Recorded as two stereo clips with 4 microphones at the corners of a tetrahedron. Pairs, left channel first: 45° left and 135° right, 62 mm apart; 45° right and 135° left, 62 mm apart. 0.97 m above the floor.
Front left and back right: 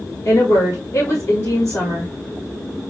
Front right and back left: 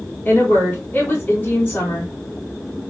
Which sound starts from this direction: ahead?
A woman speaking, at 0.2 s.